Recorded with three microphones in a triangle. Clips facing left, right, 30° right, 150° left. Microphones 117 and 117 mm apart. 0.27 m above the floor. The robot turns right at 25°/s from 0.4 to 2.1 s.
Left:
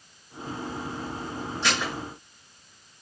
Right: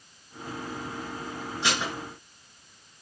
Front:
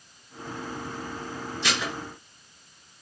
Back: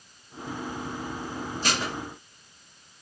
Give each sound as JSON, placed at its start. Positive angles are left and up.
{"t": 1.6, "sound": "dishes clattering", "azimuth_deg": -165, "distance_m": 2.0}